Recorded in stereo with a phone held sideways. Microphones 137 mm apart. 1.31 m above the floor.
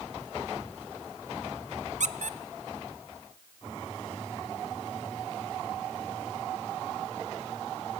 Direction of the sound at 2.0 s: 65° right (ahead or behind).